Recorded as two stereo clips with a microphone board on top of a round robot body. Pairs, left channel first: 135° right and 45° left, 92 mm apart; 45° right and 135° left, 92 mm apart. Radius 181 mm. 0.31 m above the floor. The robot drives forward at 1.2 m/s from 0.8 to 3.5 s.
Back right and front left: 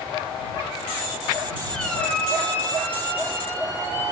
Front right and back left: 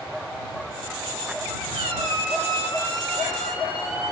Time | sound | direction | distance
1.7 | a squeak | 140° left | 2.5 m